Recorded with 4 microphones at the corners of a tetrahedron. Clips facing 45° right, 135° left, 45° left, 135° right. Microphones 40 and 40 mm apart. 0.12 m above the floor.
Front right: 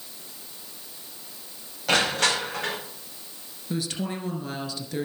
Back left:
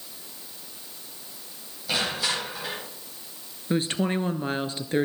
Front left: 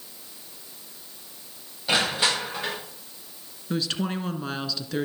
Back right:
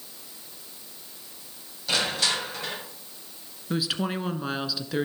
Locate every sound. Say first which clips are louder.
1.9 s crushing: front right 5 dB, front left 3 dB; 20° right, 7 m
3.7 s a woman speaking: back left 5 dB, even; 145° left, 1.4 m